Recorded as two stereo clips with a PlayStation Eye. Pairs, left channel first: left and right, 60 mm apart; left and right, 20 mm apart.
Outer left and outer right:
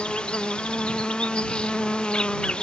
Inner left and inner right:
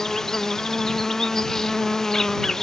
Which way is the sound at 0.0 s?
20° left (ahead or behind).